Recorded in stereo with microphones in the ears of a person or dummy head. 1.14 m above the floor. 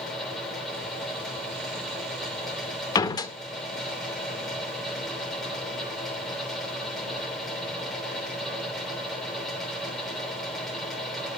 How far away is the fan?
About 3 m.